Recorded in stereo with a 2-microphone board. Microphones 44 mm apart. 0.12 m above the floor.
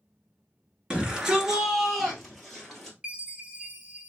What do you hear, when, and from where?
0.9 s a shout: 20° right (ahead or behind), 1.4 m; by 3.0 s 10° left (ahead or behind), 2.5 m
3.0 s a chime: 20° right (ahead or behind), 0.9 m